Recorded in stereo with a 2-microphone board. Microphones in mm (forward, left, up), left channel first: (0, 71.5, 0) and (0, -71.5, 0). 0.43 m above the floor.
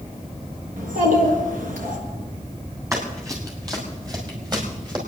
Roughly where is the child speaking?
Right.